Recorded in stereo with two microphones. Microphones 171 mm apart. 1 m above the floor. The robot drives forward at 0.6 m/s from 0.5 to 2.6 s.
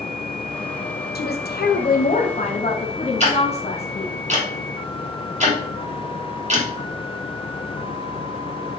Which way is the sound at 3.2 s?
45° right (ahead or behind).